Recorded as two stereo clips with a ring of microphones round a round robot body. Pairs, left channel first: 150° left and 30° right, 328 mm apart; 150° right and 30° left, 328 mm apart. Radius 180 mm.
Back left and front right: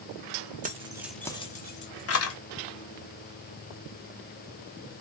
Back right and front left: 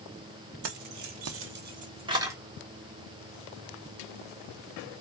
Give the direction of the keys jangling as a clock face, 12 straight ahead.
11 o'clock.